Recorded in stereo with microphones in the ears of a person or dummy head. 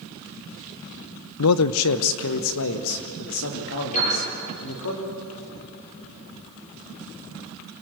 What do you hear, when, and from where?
1.4 s a man speaking: 85° left, 0.6 m; by 4.9 s 65° left (ahead or behind), 3 m
3.9 s a piano: 40° left (ahead or behind), 9.5 m